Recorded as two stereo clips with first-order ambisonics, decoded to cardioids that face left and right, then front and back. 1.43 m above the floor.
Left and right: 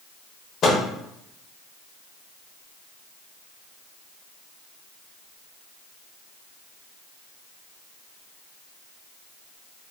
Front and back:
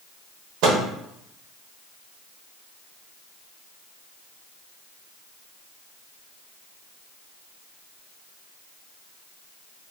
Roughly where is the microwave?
Behind left.